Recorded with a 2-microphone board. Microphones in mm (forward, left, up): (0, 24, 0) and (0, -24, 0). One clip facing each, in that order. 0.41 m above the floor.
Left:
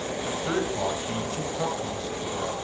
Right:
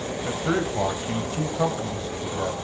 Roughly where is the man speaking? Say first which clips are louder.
Right 3 dB; centre.